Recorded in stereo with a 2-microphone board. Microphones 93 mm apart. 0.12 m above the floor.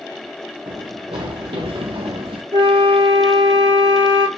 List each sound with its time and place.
0.7 s running footsteps: 70° right (ahead or behind), 1.8 m; by 2.4 s 75° right (ahead or behind), 0.7 m
2.5 s a flute: 75° right (ahead or behind), 1.3 m